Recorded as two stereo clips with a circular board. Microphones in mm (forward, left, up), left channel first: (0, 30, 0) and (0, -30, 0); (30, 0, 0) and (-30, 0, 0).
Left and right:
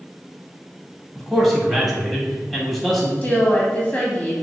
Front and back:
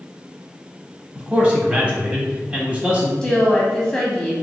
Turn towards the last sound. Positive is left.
turn(degrees=60)